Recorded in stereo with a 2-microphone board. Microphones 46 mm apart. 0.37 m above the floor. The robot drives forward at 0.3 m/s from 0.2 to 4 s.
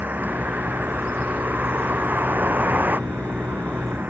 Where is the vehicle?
40° right (ahead or behind).